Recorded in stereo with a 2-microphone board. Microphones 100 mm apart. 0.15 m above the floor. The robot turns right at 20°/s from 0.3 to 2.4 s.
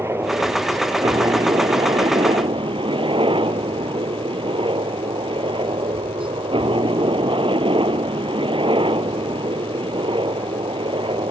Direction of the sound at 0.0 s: 150° right.